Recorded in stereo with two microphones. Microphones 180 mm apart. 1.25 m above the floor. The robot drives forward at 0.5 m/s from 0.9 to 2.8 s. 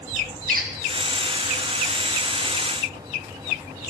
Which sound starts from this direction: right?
A squeak, at 0.5 s.